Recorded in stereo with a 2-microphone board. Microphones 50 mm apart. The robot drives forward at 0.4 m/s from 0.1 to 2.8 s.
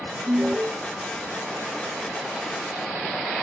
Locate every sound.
0.3 s an alarm: 40° right (ahead or behind), 0.9 m